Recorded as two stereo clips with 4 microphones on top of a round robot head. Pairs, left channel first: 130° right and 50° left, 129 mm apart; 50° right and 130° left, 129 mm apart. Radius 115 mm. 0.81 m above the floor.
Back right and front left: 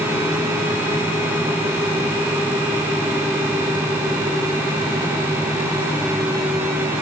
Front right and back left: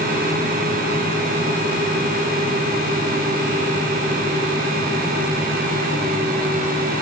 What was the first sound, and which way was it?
Only background noise.